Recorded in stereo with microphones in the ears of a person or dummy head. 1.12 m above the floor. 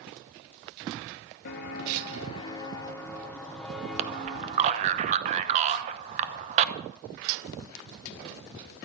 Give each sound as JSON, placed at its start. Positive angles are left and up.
{"t": 1.4, "sound": "footsteps", "side_deg": 45, "distance_m": 1.5}
{"t": 4.0, "sound": "a man speaking", "side_deg": -40, "distance_m": 0.9}